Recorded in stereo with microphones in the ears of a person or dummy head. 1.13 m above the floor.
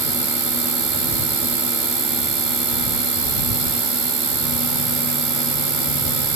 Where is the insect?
50° right (ahead or behind).